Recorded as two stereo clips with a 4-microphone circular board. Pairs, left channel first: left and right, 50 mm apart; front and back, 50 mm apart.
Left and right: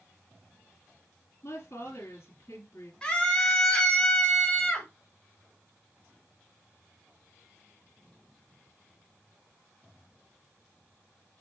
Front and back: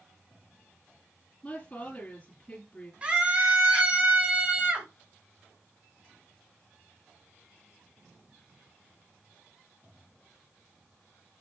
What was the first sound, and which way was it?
A woman speaking, 70° left.